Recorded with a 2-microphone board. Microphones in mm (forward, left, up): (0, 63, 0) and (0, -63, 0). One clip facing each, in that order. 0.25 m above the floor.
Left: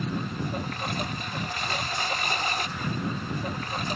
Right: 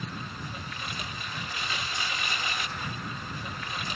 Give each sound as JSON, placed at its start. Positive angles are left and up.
{"t": 0.0, "sound": "a lawn mower", "side_deg": 50}